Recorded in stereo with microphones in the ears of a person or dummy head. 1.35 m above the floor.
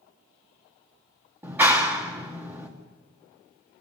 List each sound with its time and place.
1.4 s a clap: 15° right (ahead or behind), 1.8 m